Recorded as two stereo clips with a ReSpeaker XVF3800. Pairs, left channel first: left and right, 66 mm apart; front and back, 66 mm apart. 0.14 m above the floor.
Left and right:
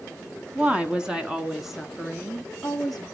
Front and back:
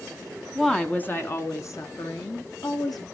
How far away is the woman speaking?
About 1.2 m.